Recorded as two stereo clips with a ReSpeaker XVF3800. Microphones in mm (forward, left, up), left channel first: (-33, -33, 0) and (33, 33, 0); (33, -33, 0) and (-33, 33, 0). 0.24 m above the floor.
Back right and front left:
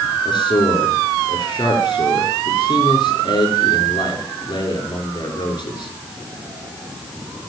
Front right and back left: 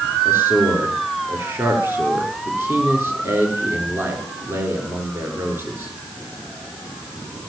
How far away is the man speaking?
About 4 m.